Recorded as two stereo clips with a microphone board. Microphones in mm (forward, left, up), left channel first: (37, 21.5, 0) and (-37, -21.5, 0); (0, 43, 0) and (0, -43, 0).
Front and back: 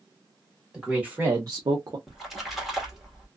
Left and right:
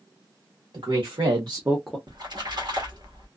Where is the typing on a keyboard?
I don't hear typing on a keyboard.